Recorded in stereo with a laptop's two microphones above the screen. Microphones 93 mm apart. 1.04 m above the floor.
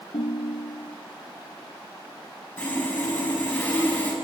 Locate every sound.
0.1 s a ringtone: 80° left, 0.7 m
2.6 s sawing: 20° left (ahead or behind), 6.5 m